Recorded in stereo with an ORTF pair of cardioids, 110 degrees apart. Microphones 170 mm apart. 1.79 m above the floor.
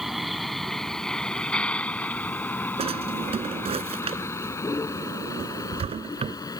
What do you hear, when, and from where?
0.0 s a vehicle: straight ahead; by 6.6 s 25° left
2.8 s a drawer: 35° right